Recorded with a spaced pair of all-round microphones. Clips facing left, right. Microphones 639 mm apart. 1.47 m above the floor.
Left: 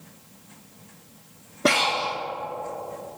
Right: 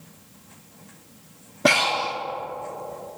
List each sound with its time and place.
1.6 s breathing: 20° right (ahead or behind), 0.6 m